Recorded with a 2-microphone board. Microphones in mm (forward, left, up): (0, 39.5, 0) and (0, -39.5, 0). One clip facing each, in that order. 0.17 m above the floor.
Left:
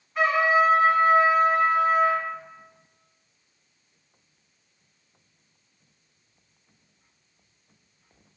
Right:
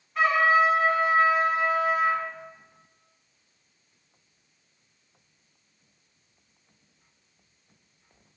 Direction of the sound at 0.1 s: 5° left (ahead or behind).